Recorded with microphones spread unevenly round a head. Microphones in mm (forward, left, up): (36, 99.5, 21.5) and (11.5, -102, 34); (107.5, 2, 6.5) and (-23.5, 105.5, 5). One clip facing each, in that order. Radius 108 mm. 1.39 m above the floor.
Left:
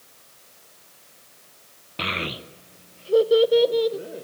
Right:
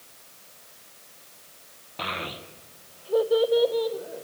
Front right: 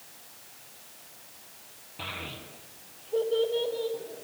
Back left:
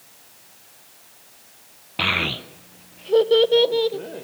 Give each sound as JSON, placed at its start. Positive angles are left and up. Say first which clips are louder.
{"t": 2.0, "sound": "a child speaking", "louder": "left 4 dB, back left 13 dB", "azimuth_deg": 145, "distance_m": 0.7}